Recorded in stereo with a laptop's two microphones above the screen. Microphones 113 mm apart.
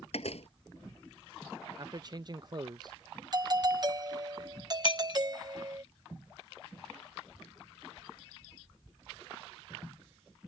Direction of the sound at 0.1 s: 65° left (ahead or behind).